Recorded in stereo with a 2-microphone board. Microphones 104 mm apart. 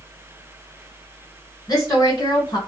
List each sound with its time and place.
1.7 s a woman speaking: 35° left (ahead or behind), 1.8 m